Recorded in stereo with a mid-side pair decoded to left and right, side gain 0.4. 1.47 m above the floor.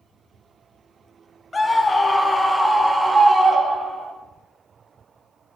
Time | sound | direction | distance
1.5 | a scream | 25° left | 2.5 m